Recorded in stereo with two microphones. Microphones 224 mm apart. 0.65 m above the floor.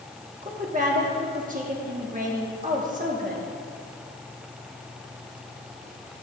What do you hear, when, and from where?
0.4 s a woman speaking: 35° right (ahead or behind), 1.4 m